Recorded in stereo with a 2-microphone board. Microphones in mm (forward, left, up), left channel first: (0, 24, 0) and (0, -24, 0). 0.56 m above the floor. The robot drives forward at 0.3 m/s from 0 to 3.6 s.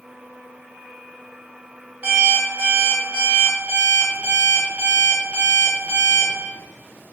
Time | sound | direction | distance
2.0 | an alarm clock | 35° right (ahead or behind) | 1.7 m